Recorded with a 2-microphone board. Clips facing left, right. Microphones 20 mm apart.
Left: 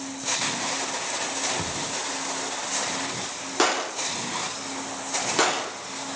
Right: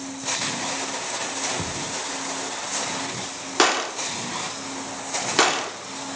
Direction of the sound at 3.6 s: 30° right (ahead or behind).